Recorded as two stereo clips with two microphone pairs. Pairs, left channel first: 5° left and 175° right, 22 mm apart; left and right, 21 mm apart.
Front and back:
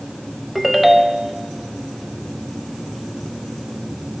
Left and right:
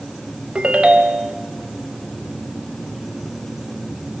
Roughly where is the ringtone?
Right.